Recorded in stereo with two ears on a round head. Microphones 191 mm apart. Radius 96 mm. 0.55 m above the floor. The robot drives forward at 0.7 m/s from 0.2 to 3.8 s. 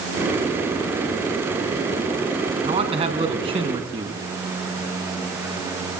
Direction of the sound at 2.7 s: 30° right (ahead or behind).